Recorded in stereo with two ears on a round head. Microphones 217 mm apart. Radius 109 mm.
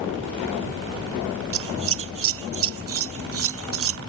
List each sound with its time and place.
1.5 s scissors: 60° right (ahead or behind)